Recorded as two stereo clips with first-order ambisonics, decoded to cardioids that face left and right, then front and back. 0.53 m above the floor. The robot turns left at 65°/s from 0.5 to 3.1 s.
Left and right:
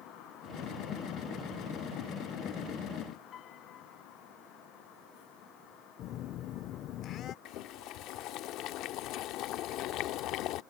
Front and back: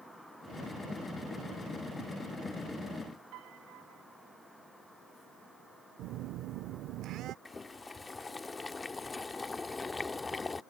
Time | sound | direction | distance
3.3 | a piano | 145° left | ?
6.0 | a phone buzzing | 135° left | ?
7.5 | boiling | 75° left | ?